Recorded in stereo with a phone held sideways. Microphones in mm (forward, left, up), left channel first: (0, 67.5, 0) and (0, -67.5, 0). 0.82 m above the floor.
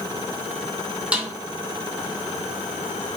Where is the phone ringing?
No phone ringing in this recording.